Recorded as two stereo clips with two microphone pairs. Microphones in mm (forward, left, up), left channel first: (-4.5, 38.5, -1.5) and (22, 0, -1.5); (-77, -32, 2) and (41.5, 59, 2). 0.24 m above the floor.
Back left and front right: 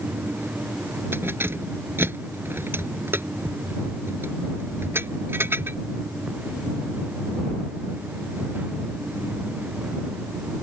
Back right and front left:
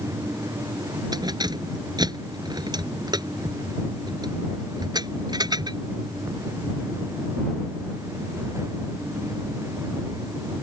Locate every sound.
1.1 s keys jangling: 25° right